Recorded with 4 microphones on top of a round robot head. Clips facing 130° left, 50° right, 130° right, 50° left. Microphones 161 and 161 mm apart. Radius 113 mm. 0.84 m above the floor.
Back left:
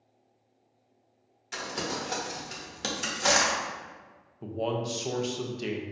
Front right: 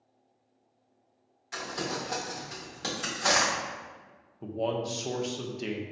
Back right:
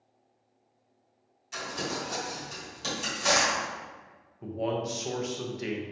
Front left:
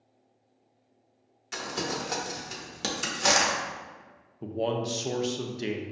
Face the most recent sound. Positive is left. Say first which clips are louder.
# even, front left 2 dB
turn(degrees=45)